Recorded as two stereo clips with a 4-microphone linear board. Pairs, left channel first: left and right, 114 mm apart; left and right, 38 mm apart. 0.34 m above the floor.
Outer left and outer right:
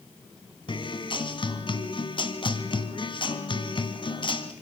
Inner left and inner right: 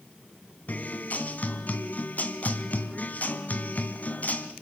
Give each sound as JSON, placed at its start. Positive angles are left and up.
{"t": 0.7, "sound": "a guitar", "side_deg": 45, "distance_m": 2.0}